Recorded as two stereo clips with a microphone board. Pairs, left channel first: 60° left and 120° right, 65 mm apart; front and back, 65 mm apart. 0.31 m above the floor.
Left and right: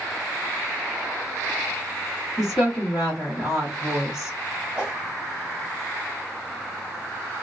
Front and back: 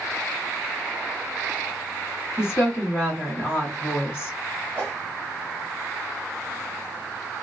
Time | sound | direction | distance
2.4 | a woman speaking | 40° right | 2.5 m
4.8 | a whoosh | 55° right | 1.6 m